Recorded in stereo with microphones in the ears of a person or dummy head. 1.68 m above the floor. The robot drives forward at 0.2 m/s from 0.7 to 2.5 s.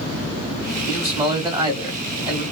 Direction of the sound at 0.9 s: 25° right (ahead or behind).